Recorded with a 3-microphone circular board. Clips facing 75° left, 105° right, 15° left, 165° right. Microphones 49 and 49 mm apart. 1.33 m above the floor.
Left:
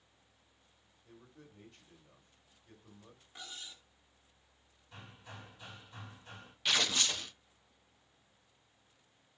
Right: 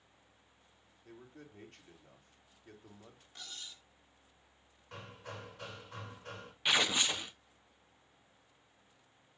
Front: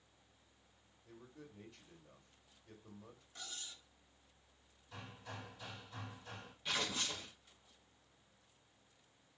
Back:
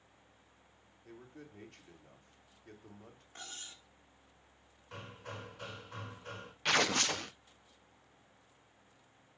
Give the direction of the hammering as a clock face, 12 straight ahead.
4 o'clock.